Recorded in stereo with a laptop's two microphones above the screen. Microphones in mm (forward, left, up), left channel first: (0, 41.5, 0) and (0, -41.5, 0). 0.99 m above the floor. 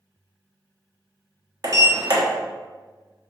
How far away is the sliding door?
About 0.5 m.